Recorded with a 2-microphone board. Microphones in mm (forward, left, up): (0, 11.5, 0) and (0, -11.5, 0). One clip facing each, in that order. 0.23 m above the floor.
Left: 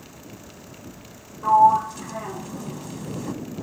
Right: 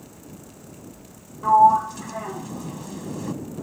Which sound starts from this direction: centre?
A sliding door, at 1.4 s.